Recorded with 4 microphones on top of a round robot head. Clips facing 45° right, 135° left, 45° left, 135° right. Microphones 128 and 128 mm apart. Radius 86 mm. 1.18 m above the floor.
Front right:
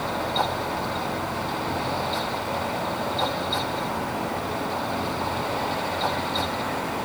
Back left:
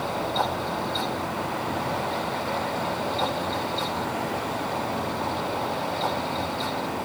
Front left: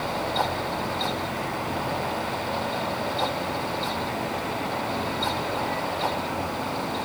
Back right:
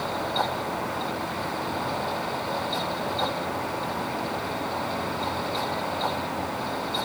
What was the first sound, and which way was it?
Only background noise.